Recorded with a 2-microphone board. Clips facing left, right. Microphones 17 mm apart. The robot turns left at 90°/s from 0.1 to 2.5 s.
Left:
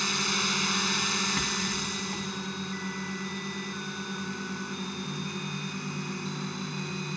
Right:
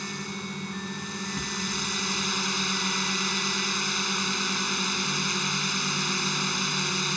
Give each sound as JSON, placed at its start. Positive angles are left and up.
{"t": 0.0, "sound": "a drone", "azimuth_deg": 145}
{"t": 1.4, "sound": "a rattle", "azimuth_deg": 135}